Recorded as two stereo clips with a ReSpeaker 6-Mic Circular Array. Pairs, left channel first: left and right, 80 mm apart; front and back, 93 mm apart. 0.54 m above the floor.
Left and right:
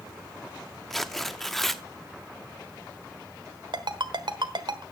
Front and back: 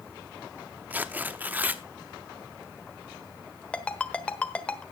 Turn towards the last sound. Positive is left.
turn(degrees=-75)